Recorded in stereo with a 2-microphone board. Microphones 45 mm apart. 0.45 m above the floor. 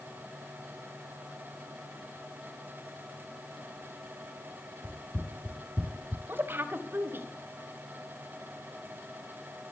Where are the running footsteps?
25° right (ahead or behind), 1.8 m; by 6.2 s 35° right (ahead or behind), 1.0 m.